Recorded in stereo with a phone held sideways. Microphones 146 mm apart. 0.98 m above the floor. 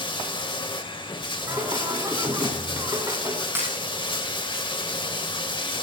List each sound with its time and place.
0.0 s running water: 35° left (ahead or behind), 1.8 m
1.5 s singing: 25° right (ahead or behind), 3.5 m
3.5 s breaking glass: 15° right (ahead or behind), 5 m